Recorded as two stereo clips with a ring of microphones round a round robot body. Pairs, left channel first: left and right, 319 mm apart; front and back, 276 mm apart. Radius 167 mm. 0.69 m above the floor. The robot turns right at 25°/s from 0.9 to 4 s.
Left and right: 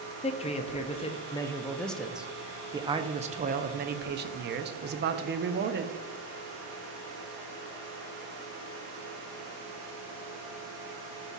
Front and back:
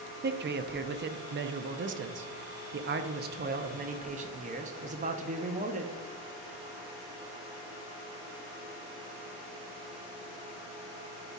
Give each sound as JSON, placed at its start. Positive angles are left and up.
{"t": 0.2, "sound": "a man speaking", "azimuth_deg": 150, "distance_m": 0.5}